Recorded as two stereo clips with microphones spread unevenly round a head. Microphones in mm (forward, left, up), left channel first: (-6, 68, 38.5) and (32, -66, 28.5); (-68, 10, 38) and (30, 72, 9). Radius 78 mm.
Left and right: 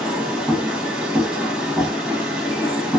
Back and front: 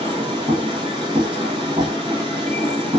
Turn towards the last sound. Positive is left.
turn(degrees=5)